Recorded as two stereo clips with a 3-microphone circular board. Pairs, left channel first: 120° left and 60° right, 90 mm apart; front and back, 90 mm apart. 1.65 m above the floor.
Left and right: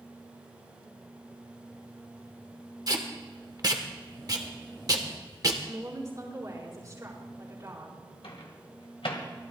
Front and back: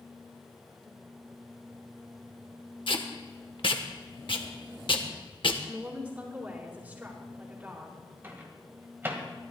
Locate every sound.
2.9 s tape being pulled: 15° right, 1.1 m
5.7 s a woman speaking: 105° right, 4.5 m
8.2 s a microwave: 115° left, 1.7 m